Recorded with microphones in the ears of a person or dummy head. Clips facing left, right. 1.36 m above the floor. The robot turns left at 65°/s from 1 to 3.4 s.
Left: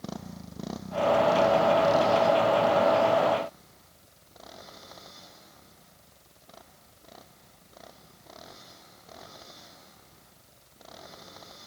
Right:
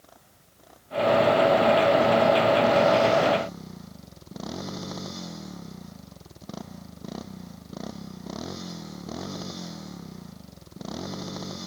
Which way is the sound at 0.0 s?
85° left.